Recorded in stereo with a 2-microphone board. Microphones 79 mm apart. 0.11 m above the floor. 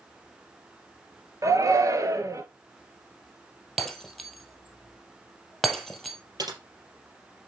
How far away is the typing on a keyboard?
About 3.5 m.